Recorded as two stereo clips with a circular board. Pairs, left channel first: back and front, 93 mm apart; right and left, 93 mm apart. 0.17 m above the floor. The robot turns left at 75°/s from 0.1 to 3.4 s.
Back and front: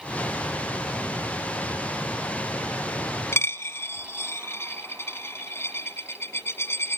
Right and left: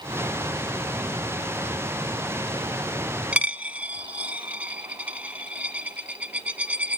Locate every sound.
3.3 s a dropped coin: 155° left, 0.8 m; by 7.0 s 150° left, 0.8 m